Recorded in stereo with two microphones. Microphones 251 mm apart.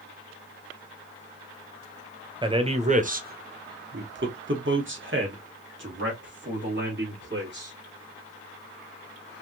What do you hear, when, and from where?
2.4 s a man speaking: 20° right (ahead or behind), 1.1 m; by 7.7 s 45° right (ahead or behind), 2.5 m